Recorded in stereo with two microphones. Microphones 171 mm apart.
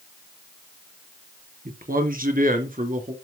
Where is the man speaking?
55° right (ahead or behind), 3 m; by 3.1 s 50° right (ahead or behind), 2.5 m.